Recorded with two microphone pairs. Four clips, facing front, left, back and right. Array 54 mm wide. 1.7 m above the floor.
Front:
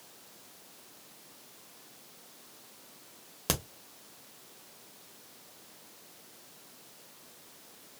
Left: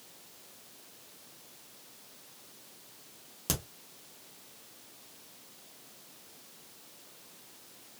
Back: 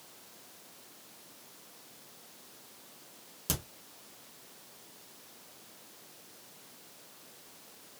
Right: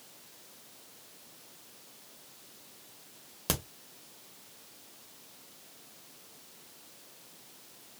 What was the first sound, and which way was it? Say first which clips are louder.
A crack: right 2 dB, front 5 dB; 25° right.